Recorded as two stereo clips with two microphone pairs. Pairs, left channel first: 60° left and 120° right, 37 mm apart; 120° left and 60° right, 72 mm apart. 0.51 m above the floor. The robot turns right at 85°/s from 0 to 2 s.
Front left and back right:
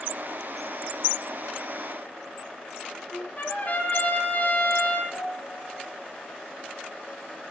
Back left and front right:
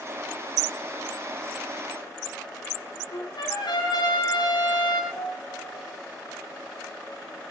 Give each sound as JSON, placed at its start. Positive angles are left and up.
{"t": 3.1, "sound": "a trumpet", "azimuth_deg": 105, "distance_m": 7.5}
{"t": 5.1, "sound": "a piano", "azimuth_deg": 15, "distance_m": 7.0}